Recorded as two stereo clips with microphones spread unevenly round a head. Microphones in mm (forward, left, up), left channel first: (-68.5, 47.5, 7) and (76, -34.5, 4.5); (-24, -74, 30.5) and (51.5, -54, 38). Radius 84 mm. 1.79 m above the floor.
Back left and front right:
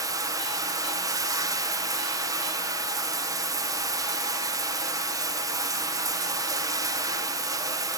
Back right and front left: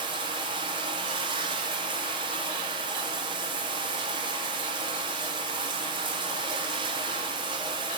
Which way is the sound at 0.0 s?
40° left.